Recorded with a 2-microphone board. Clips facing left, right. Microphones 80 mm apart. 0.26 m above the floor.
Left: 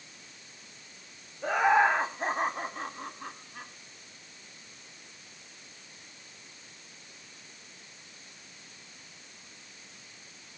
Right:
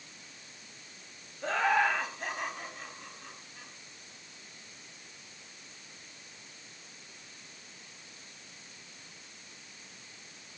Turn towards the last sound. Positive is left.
turn(degrees=55)  # may be behind; listen again after turning